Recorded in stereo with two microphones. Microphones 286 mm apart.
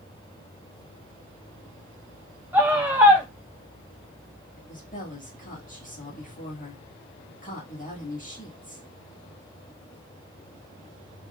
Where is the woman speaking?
25° left (ahead or behind), 1.4 m.